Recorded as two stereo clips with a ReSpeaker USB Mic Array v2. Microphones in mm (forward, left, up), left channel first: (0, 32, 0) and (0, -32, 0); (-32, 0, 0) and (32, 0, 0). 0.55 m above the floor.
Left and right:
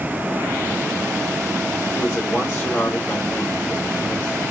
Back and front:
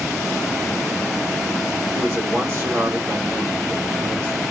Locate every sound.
1.9 s a man speaking: 45° left, 2 m